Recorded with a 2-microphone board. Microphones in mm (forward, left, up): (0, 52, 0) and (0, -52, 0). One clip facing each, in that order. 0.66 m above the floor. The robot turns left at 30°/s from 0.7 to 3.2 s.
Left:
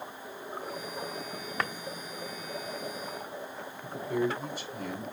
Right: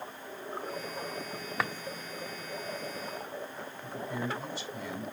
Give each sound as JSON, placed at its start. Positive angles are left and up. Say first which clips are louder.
{"t": 1.6, "sound": "a drawer", "louder": "even", "side_deg": -5, "distance_m": 0.6}
{"t": 3.8, "sound": "a man speaking", "louder": "left 6 dB", "side_deg": 50, "distance_m": 3.0}